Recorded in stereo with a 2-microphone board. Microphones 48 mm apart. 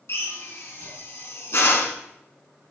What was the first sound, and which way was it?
A drill, 60° left (ahead or behind).